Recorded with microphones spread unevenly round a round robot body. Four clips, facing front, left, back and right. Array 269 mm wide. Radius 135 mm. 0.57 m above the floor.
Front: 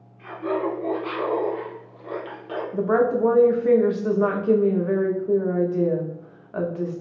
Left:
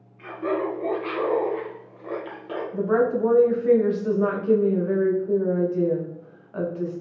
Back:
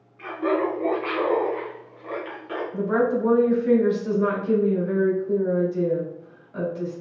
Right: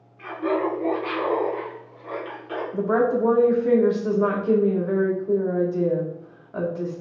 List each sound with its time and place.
0.2 s laughter: straight behind, 1.0 m; by 2.6 s 50° left, 1.2 m
2.7 s a woman speaking: 25° right, 1.0 m